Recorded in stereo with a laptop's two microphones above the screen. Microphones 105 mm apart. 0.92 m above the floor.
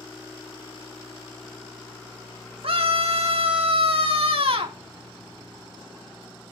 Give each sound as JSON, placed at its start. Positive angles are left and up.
{"t": 2.6, "sound": "a scream", "side_deg": -70, "distance_m": 2.0}